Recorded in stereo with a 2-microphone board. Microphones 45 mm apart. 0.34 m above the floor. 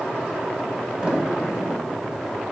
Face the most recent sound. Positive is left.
turn(degrees=-20)  # may be behind; listen again after turning